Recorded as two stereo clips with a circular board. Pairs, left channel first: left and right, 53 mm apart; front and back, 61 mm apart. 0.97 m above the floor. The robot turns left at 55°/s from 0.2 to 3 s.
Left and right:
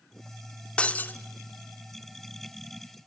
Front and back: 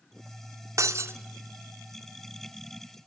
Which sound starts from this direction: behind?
Breaking glass, at 0.8 s.